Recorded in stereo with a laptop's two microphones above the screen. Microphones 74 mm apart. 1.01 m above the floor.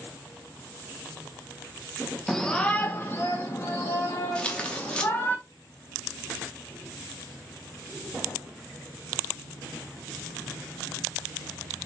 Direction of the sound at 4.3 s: 15° left (ahead or behind).